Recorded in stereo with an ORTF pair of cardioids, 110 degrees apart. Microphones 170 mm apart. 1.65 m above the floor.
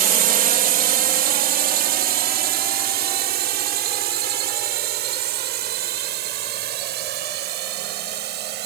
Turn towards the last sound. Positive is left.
turn(degrees=-75)